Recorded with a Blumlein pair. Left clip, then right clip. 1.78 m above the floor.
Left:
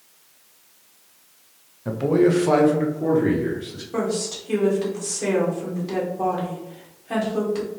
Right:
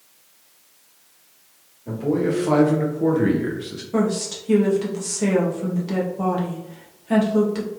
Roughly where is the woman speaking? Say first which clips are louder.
Right 2 dB; ahead.